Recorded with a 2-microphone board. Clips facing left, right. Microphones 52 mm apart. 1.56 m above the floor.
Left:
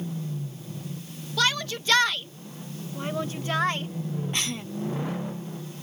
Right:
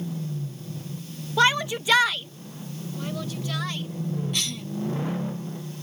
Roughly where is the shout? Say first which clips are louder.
Right 5 dB; right.